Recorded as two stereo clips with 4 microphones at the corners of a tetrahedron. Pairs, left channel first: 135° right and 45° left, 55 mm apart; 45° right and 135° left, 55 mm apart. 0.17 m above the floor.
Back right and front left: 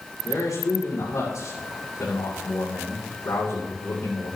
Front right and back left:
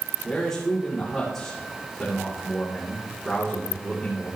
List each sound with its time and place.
0.2 s a man speaking: 125° right, 7.5 m